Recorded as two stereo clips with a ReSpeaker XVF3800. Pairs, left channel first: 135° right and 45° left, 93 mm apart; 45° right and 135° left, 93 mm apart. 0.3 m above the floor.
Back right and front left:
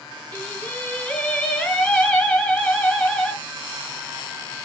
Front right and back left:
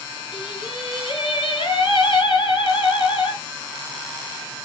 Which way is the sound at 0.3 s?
60° right.